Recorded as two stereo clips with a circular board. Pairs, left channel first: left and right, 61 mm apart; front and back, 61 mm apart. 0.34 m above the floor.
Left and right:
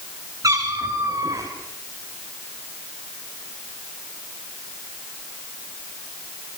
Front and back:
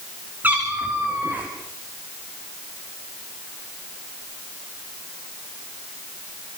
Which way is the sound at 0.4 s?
115° right.